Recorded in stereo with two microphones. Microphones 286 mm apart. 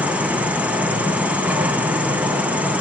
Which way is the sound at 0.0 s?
5° right (ahead or behind).